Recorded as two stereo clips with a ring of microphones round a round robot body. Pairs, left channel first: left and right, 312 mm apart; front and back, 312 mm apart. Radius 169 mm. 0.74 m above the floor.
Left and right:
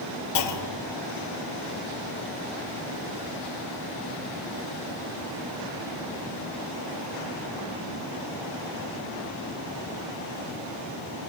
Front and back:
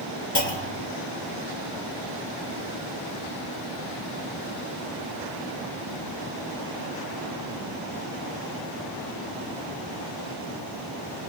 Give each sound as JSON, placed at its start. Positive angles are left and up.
{"t": 0.3, "sound": "a clunk", "azimuth_deg": 55, "distance_m": 2.5}